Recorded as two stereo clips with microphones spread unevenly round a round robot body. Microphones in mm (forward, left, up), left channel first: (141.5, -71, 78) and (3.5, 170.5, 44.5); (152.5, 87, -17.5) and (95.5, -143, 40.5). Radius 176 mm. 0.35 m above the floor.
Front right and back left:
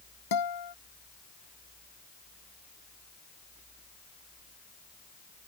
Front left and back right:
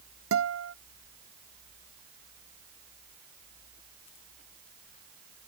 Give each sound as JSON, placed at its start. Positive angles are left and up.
{"t": 0.3, "sound": "a guitar", "azimuth_deg": -80}